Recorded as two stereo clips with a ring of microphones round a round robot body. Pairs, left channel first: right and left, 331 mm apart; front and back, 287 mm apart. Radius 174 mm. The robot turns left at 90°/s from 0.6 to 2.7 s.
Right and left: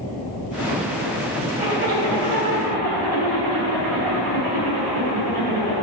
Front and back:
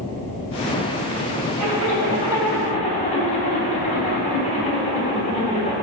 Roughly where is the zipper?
Behind.